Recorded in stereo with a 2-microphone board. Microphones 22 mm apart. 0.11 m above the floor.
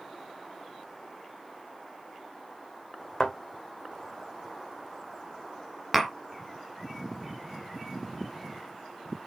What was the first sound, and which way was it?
A thud, 20° left (ahead or behind).